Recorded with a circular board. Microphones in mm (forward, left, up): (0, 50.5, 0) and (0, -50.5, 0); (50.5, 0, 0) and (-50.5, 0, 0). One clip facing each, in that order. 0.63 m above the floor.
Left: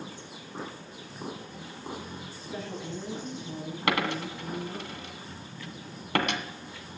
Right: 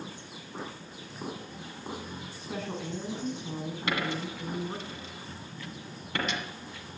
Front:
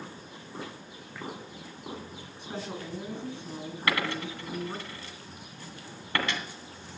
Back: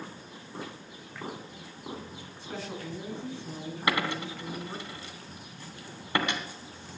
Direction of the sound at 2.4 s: 70° right.